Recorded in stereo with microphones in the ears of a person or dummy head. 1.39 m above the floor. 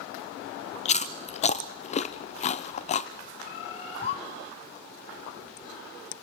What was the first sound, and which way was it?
Chewing, 30° left (ahead or behind).